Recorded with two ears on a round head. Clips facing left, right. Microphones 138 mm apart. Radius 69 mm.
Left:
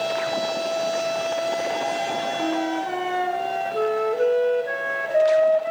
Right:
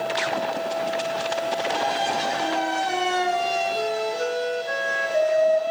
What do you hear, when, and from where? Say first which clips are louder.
2.4 s a flute: even; 60° left (ahead or behind), 1.3 m